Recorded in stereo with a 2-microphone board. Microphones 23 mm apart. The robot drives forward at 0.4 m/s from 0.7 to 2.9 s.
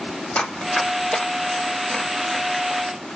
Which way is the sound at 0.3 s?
70° left (ahead or behind).